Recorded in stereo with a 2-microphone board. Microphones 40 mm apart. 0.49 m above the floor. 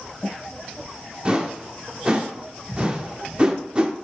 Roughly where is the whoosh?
Right.